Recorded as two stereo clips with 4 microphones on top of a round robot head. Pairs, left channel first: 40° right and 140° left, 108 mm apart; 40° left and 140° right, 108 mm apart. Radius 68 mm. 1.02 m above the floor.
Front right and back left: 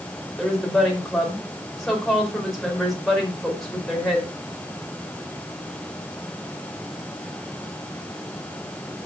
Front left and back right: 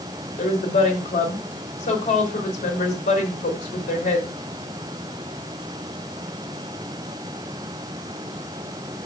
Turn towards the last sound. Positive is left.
turn(degrees=50)